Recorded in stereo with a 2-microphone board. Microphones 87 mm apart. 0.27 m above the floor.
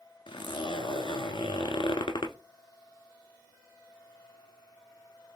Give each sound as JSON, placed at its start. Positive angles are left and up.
{"t": 0.3, "sound": "a zipper", "side_deg": 80, "distance_m": 0.6}